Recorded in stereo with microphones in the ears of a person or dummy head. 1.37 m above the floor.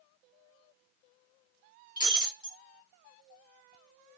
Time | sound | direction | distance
2.0 | breaking glass | 30° left (ahead or behind) | 1.6 m